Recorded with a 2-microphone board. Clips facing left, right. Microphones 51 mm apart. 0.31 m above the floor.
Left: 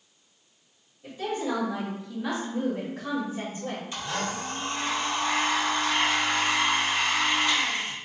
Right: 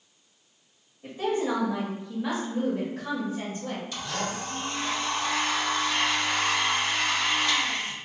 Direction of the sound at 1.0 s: 35° right (ahead or behind).